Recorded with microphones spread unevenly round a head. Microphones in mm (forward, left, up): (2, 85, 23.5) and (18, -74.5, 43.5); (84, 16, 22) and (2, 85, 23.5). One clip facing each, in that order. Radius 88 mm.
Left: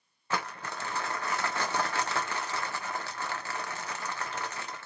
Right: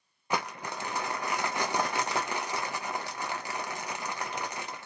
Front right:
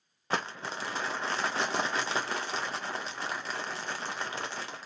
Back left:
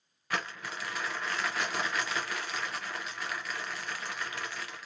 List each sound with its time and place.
0.3 s crumpling: 45° right, 0.6 m